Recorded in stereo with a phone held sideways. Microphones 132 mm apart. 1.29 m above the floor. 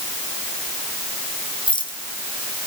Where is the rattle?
40° left (ahead or behind), 2.5 m.